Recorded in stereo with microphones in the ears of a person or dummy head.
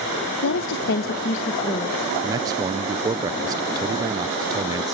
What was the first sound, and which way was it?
A woman speaking, 70° left (ahead or behind).